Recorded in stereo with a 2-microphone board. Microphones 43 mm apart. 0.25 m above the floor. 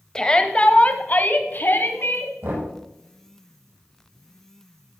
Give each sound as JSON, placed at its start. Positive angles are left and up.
{"t": 0.1, "sound": "a shout", "side_deg": 15, "distance_m": 1.0}
{"t": 2.4, "sound": "knocking", "side_deg": -80, "distance_m": 5.5}